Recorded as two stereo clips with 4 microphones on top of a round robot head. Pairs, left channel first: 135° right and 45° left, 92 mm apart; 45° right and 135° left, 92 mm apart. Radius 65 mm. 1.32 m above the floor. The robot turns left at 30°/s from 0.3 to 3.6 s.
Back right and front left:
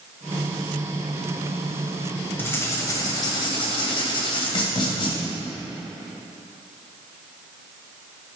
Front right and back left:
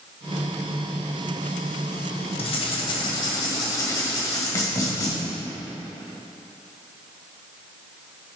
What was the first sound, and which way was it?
Writing, 60° right.